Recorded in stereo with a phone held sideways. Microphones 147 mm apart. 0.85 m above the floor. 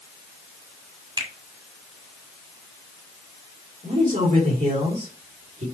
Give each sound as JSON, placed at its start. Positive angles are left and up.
{"t": 1.2, "sound": "a finger snap", "side_deg": -35, "distance_m": 1.6}
{"t": 3.8, "sound": "a man speaking", "side_deg": -70, "distance_m": 3.5}